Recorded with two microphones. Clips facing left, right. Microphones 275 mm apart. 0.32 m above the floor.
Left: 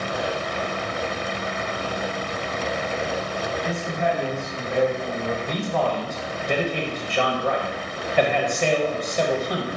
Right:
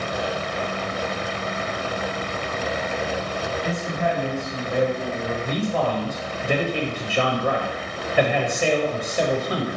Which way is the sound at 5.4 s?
10° right (ahead or behind).